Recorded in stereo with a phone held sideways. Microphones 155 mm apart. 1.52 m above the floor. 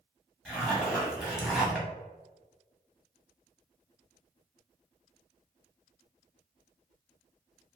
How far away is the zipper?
About 0.9 m.